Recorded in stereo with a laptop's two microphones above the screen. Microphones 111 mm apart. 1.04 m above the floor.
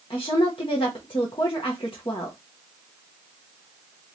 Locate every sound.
0.1 s a woman speaking: 50° left (ahead or behind), 0.9 m